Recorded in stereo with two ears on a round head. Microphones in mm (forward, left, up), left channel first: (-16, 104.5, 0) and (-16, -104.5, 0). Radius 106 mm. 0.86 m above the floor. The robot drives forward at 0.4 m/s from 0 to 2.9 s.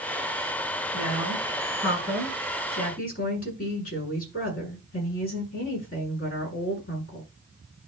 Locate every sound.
0.9 s a woman speaking: 45° left (ahead or behind), 7.5 m; by 7.2 s 40° left (ahead or behind), 8 m